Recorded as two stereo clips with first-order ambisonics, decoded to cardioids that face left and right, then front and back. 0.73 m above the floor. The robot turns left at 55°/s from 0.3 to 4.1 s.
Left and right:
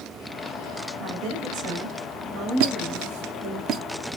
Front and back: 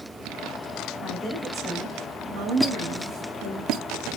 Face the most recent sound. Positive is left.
turn(degrees=-165)